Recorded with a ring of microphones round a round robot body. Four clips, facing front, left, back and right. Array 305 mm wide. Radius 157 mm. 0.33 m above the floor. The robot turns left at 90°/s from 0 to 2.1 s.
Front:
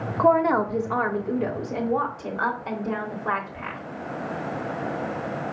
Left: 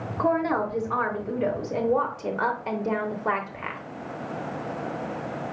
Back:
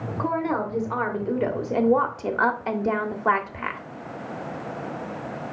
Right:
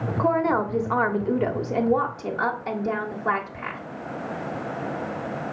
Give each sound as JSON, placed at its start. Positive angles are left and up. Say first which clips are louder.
{"t": 0.2, "sound": "a woman speaking", "louder": "right 2 dB, front 7 dB", "azimuth_deg": -15, "distance_m": 1.0}